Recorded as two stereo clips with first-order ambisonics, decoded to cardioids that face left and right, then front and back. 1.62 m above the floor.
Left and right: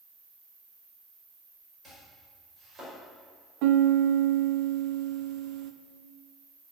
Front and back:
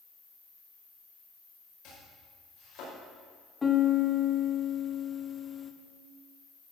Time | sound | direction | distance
0.0 | an insect | 60° right | 4.5 m
1.8 | chopping | 25° right | 5.5 m
3.6 | a piano | 75° right | 0.8 m